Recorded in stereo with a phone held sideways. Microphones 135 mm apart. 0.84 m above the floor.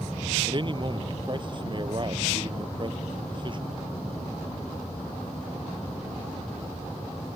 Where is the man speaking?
35° right (ahead or behind).